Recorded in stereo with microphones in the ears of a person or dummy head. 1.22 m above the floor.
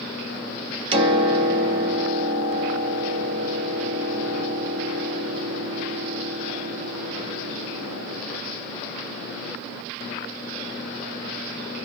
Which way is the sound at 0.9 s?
30° right (ahead or behind).